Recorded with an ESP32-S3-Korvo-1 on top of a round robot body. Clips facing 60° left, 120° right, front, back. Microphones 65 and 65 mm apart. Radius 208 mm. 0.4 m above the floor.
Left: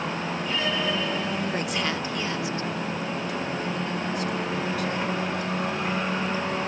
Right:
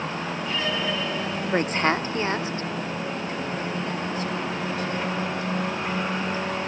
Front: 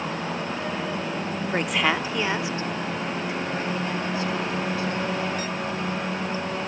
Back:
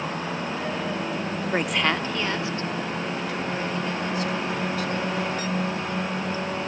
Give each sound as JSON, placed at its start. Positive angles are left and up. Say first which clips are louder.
{"t": 1.5, "sound": "a woman speaking", "louder": "right 5 dB, front 1 dB", "azimuth_deg": -105}